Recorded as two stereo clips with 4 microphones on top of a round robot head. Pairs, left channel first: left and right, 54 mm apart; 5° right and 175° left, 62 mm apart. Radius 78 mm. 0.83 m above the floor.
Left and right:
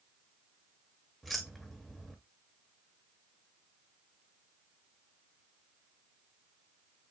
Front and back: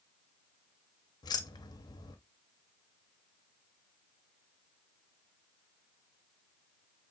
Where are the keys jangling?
Straight ahead, 0.7 m.